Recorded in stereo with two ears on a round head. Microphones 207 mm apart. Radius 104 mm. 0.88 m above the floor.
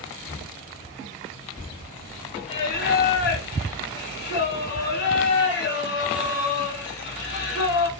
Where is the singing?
50° left (ahead or behind), 1.3 m.